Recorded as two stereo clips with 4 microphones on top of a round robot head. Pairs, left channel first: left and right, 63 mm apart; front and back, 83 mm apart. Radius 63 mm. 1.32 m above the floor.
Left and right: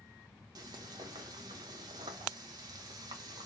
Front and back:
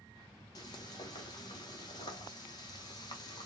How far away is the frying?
About 0.8 m.